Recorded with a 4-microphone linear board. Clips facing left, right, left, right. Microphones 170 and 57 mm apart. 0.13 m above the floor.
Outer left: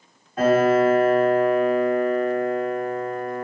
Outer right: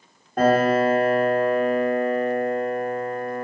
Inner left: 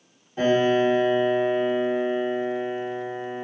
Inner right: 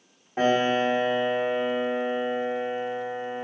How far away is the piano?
About 1.7 m.